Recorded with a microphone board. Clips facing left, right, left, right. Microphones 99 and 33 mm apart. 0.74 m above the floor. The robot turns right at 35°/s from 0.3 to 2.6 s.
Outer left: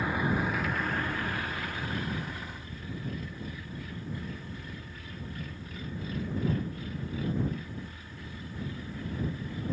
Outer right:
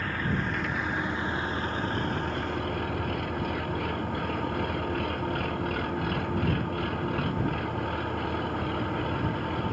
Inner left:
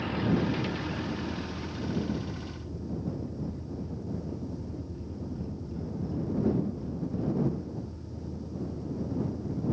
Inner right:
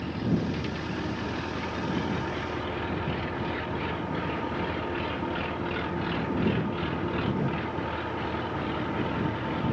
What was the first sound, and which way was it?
An engine running, 165° left.